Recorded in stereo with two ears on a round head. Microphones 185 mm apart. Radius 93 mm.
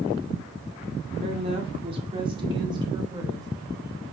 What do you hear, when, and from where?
1.2 s a woman speaking: 30° right (ahead or behind), 2.0 m; by 3.5 s 20° right (ahead or behind), 3.5 m